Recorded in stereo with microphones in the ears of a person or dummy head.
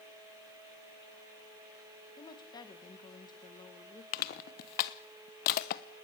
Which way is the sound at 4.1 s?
50° left (ahead or behind).